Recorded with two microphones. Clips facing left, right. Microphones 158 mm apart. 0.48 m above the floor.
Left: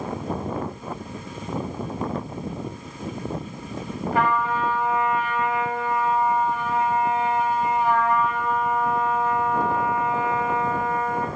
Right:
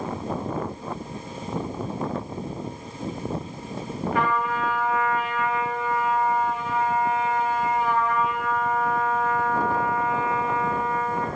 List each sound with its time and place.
4.1 s a trumpet: 35° left (ahead or behind), 2 m